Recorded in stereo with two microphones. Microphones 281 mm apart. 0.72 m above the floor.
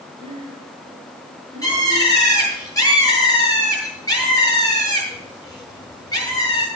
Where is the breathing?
20° right (ahead or behind), 6 m.